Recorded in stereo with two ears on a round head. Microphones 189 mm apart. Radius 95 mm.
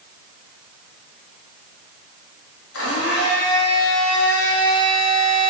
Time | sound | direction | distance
2.7 | a blender | 70° left (ahead or behind) | 3.5 m